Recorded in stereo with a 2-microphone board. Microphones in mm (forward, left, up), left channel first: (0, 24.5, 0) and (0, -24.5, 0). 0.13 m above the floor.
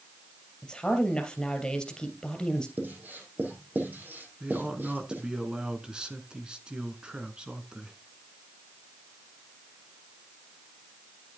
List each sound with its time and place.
0.6 s a woman speaking: 15° left (ahead or behind), 2.5 m
2.8 s writing: 40° right (ahead or behind), 3.5 m
4.4 s a man speaking: 20° right (ahead or behind), 1.5 m